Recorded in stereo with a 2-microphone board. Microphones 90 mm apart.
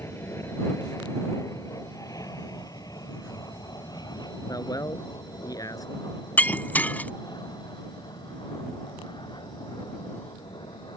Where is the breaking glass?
20° left (ahead or behind).